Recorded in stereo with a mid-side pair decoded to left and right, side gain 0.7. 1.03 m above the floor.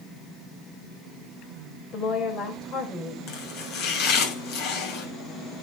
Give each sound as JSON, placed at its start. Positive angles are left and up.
{"t": 1.9, "sound": "a woman speaking", "azimuth_deg": 35, "distance_m": 4.0}
{"t": 3.3, "sound": "chopping", "azimuth_deg": 55, "distance_m": 6.5}